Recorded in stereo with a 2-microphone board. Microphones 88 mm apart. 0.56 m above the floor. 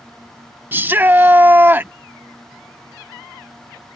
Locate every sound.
0.7 s a shout: 20° right (ahead or behind)